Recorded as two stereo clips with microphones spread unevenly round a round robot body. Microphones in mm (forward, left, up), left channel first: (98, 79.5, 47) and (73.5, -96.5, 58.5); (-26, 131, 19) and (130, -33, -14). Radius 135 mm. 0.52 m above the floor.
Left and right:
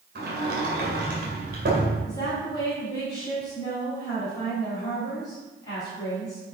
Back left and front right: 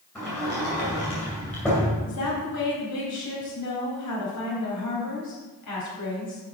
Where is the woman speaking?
155° left, 4 m.